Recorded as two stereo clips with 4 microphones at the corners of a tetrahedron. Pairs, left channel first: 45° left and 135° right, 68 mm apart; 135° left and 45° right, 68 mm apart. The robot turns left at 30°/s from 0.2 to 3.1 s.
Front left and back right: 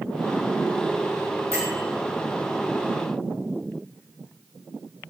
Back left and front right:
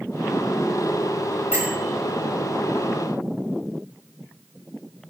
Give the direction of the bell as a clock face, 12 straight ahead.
3 o'clock.